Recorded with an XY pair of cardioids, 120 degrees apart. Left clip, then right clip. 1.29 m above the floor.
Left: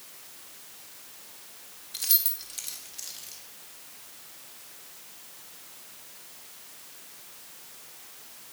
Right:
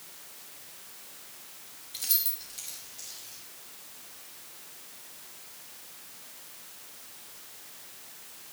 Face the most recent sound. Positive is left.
turn(degrees=50)